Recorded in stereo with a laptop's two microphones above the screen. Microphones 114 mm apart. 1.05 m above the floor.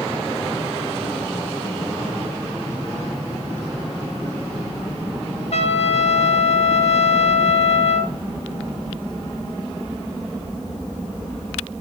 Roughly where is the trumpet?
Left.